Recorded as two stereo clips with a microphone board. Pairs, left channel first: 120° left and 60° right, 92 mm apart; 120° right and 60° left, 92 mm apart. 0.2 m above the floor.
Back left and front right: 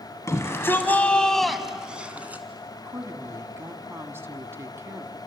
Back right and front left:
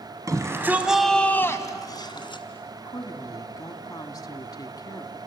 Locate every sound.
0.3 s a shout: 80° left, 1.9 m; by 2.4 s 130° right, 2.5 m
2.8 s a woman speaking: 110° right, 1.5 m